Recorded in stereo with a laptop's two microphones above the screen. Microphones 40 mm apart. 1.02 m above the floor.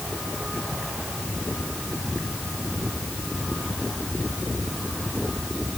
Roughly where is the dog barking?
No dog barking in this recording.